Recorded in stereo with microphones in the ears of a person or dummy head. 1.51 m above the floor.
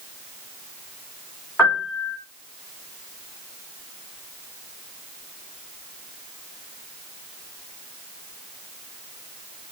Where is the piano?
15° left (ahead or behind), 1.5 m.